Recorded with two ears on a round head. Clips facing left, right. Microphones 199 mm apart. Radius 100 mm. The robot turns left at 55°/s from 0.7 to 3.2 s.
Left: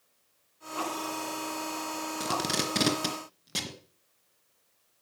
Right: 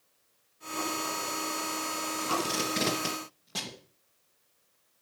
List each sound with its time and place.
2.2 s tape being pulled: 85° left, 2.5 m; by 3.8 s 40° left (ahead or behind), 2.5 m